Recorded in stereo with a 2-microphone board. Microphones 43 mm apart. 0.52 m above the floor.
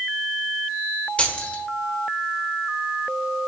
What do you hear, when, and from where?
1.2 s keys jangling: 30° left (ahead or behind), 1.2 m